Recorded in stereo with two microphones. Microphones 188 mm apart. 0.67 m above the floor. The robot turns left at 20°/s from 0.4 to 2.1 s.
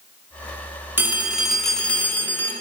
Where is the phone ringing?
10° right (ahead or behind), 0.7 m; by 2.5 s 10° left (ahead or behind), 0.7 m.